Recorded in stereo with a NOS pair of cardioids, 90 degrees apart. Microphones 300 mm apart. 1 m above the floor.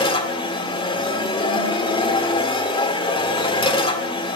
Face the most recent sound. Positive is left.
turn(degrees=20)